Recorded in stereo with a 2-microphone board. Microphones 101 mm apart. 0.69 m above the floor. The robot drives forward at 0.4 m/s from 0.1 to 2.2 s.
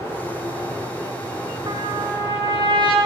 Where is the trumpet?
50° right (ahead or behind), 0.9 m; by 3.0 s 45° right (ahead or behind), 0.9 m.